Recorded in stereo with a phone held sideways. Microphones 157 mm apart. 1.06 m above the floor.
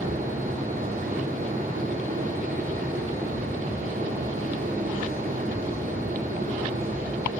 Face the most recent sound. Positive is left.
turn(degrees=-80)